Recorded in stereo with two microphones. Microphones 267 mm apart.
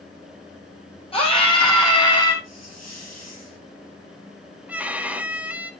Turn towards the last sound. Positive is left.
turn(degrees=-5)  # may be behind; listen again after turning